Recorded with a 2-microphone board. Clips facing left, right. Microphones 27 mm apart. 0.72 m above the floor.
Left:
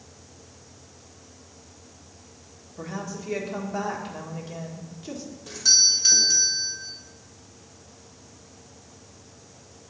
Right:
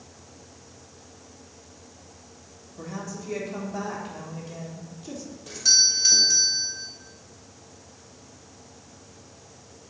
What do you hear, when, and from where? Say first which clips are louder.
2.8 s a woman speaking: left 2 dB; 25° left (ahead or behind), 1.6 m
5.5 s a doorbell: left 1 dB; centre (ahead or behind), 1.6 m